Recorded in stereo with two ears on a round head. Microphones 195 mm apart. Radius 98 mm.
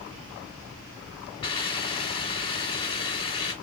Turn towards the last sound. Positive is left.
turn(degrees=25)  # may be behind; listen again after turning